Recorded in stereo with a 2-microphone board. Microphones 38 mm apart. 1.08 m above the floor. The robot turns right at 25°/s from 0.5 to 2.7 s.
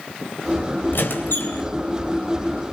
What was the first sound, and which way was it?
A squeak, 70° left (ahead or behind).